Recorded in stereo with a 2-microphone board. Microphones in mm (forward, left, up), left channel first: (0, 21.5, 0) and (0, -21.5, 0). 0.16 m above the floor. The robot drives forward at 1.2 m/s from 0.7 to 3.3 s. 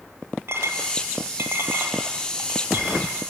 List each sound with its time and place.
0.5 s a clink: 70° right (ahead or behind), 3 m; by 3.1 s 45° right (ahead or behind), 4.5 m